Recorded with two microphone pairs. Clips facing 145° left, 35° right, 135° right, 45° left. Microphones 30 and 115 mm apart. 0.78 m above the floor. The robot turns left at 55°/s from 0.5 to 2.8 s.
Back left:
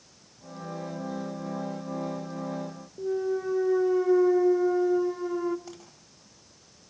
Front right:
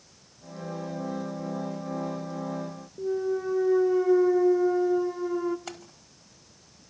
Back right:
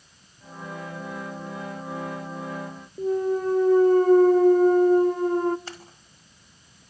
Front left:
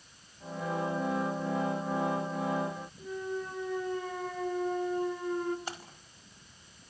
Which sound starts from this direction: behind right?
A clunk, at 3.0 s.